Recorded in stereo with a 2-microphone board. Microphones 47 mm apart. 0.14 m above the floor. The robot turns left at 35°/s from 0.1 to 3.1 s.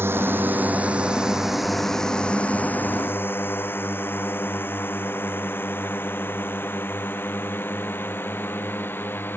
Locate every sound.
0.0 s a drone: 50° right (ahead or behind); by 9.4 s 50° left (ahead or behind)